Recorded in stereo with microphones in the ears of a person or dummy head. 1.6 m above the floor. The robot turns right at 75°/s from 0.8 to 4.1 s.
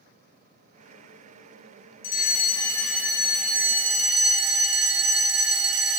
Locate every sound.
2.0 s a fire alarm: 120° left, 3 m; by 6.0 s 85° right, 3 m